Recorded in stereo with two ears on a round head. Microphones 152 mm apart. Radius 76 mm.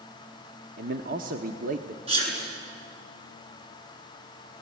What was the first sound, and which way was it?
A man speaking, 55° right (ahead or behind).